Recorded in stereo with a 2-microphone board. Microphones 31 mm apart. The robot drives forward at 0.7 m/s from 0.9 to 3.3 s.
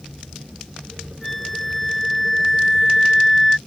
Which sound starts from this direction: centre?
A flute, at 1.2 s.